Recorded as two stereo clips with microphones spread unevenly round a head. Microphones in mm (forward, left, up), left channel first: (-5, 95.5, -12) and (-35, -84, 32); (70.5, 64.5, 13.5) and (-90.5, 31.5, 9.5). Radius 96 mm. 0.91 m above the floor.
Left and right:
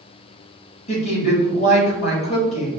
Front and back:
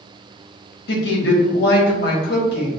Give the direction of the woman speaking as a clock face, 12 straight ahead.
11 o'clock.